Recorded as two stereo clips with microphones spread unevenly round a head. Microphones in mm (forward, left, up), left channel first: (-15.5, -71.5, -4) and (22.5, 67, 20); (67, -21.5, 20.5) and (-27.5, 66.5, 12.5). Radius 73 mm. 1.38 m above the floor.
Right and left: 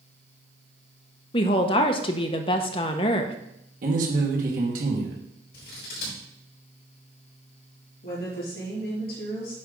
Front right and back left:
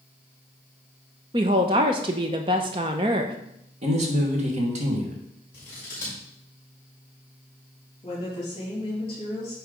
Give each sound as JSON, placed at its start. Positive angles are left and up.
{"t": 1.3, "sound": "a woman speaking", "azimuth_deg": -165, "distance_m": 0.8}
{"t": 3.8, "sound": "a man speaking", "azimuth_deg": 110, "distance_m": 2.0}
{"t": 5.5, "sound": "scissors", "azimuth_deg": -120, "distance_m": 4.0}
{"t": 8.0, "sound": "a woman speaking", "azimuth_deg": -105, "distance_m": 4.0}